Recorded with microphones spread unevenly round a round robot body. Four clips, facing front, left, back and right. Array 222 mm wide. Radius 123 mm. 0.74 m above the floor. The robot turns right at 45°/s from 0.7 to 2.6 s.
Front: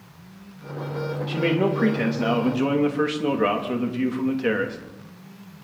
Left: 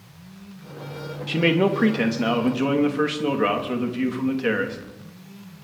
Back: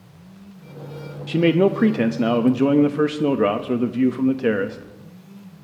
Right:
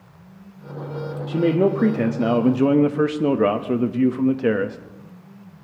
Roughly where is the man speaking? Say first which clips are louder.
Right 2 dB, back 6 dB; behind left.